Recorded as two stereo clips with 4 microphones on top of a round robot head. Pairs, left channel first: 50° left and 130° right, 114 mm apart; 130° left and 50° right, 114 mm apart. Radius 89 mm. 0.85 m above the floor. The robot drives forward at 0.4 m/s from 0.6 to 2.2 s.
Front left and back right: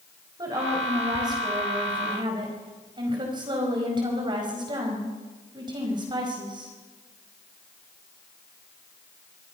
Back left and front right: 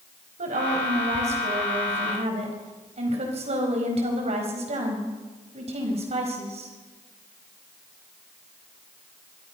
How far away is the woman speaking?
About 5 m.